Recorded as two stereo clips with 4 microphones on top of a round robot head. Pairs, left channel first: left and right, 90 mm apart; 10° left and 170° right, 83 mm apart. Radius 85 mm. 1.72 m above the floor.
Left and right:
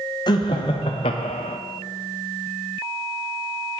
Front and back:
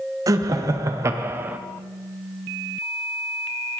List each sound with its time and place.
0.3 s laughter: 145° left, 1.4 m; by 1.6 s 120° left, 0.7 m